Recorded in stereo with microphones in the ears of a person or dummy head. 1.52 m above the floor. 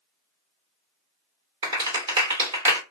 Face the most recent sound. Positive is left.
turn(degrees=-25)  # may be behind; listen again after turning